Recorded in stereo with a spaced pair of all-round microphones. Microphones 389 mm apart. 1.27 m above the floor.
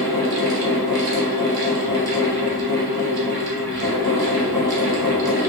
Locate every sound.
0.0 s a fan: 65° right (ahead or behind), 1.2 m